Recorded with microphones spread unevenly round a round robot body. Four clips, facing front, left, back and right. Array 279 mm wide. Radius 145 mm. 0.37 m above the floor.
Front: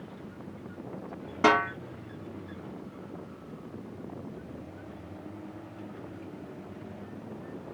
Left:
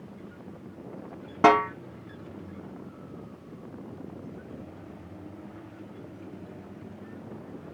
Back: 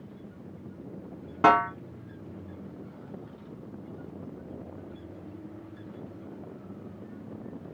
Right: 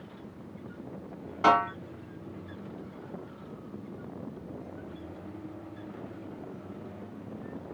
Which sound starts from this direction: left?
A snare drum, at 1.4 s.